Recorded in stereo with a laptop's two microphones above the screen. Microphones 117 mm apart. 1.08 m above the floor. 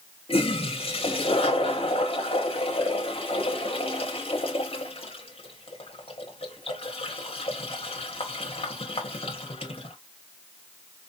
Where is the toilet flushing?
55° left (ahead or behind), 1.0 m.